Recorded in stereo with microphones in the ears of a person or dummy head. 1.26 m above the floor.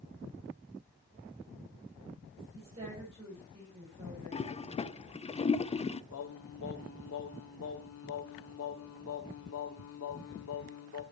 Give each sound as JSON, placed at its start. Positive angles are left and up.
{"t": 2.5, "sound": "a woman speaking", "side_deg": -35, "distance_m": 6.5}
{"t": 4.3, "sound": "a toilet flushing", "side_deg": 25, "distance_m": 0.5}
{"t": 6.1, "sound": "singing", "side_deg": 75, "distance_m": 1.9}